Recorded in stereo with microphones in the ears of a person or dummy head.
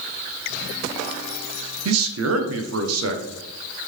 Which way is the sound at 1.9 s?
90° right.